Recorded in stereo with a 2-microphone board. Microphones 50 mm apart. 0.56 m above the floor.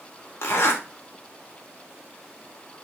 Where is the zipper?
65° left (ahead or behind), 0.9 m.